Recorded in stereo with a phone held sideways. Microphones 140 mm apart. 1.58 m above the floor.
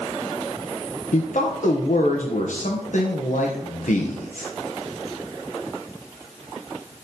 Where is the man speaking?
75° left (ahead or behind), 1.4 m.